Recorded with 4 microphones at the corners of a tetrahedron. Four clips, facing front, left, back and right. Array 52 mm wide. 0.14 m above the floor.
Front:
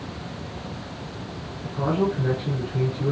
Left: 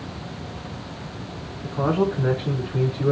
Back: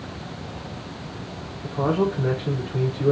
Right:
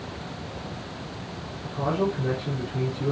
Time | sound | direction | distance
1.6 | a man speaking | 105° left | 5 m